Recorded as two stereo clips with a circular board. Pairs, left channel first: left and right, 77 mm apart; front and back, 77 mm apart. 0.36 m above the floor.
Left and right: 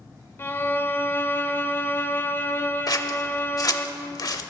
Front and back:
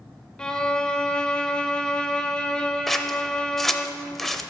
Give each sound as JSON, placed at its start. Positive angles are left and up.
{"t": 0.4, "sound": "a violin", "azimuth_deg": 70, "distance_m": 0.6}
{"t": 2.9, "sound": "scissors", "azimuth_deg": 85, "distance_m": 0.6}